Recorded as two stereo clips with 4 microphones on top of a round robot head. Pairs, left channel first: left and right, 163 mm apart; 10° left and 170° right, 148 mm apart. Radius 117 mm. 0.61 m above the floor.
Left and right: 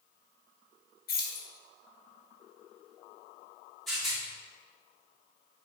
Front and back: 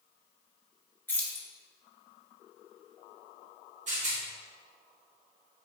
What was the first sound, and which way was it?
Keys jangling, 85° left.